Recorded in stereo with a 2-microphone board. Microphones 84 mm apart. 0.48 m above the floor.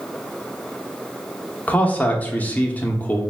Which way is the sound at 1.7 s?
20° left (ahead or behind).